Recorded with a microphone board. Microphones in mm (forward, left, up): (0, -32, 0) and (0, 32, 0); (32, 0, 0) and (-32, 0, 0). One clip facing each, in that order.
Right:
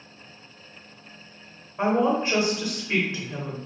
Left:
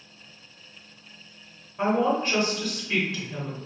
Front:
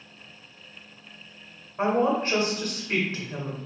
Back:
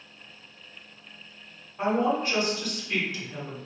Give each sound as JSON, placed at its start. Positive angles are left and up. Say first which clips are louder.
{"t": 1.8, "sound": "a woman speaking", "louder": "right 1 dB, front 2 dB", "azimuth_deg": -40, "distance_m": 1.0}